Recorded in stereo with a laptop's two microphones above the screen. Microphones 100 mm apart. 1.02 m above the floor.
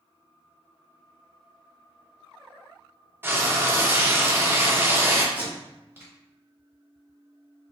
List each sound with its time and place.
3.2 s frying: 20° right (ahead or behind), 0.8 m
5.3 s tape being pulled: 25° right (ahead or behind), 1.1 m